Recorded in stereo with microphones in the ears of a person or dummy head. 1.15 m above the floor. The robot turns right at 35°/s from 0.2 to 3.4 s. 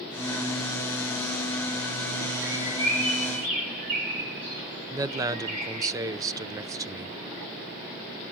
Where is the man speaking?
20° right (ahead or behind), 0.8 m.